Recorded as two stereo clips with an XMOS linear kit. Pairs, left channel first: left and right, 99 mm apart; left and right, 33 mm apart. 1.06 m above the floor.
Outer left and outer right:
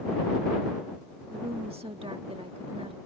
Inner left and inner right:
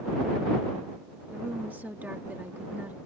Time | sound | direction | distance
1.3 | a woman speaking | 75° right (ahead or behind) | ?